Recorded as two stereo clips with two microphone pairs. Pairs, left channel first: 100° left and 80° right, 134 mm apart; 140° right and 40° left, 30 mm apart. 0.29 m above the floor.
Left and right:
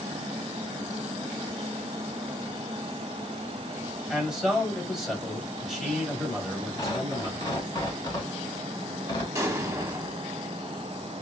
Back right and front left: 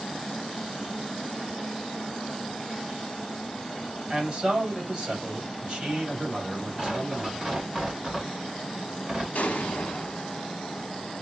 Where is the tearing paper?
80° left, 1.8 m.